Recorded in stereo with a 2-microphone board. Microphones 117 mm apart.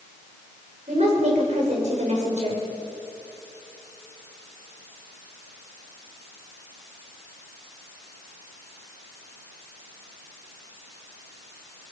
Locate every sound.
0.9 s a woman speaking: 80° right, 6.5 m